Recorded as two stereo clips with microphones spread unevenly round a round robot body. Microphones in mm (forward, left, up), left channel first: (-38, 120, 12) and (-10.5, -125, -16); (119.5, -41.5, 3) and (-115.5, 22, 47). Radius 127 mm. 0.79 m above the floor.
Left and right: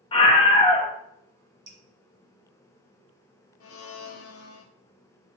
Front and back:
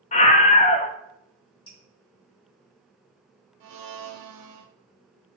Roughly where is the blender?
Behind left.